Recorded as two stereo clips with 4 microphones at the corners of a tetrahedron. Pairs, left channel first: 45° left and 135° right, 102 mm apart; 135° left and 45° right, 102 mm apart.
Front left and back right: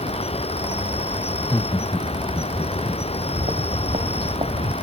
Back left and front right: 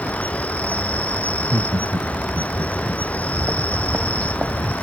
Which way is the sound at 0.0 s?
60° left.